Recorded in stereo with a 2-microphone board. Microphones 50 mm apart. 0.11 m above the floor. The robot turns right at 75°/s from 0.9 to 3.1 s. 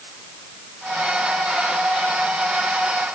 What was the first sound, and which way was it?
Only background noise.